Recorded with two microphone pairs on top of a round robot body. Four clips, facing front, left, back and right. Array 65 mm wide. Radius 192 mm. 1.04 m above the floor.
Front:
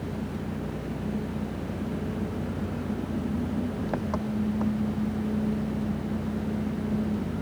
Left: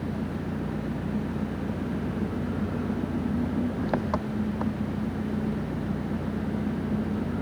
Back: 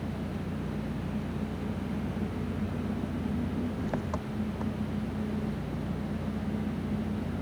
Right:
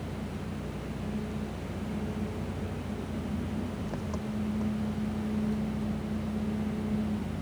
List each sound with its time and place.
0.0 s an engine running: 80° left